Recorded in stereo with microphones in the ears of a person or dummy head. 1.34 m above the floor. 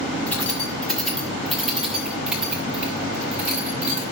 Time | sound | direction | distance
0.3 | keys jangling | 10° left (ahead or behind) | 6.5 m